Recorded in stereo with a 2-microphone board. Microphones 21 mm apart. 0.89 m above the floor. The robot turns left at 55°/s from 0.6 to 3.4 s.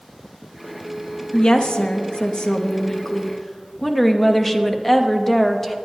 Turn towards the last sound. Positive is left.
turn(degrees=10)